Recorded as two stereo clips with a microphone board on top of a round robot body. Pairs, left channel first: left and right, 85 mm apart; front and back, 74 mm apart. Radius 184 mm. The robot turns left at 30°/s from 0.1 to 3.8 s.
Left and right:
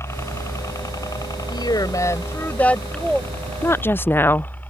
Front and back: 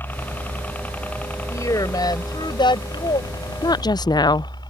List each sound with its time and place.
0.0 s a helicopter: 50° left; by 4.7 s 20° left
1.5 s a woman speaking: 50° left; by 3.2 s straight ahead
3.6 s a woman speaking: 30° left; by 4.7 s 25° left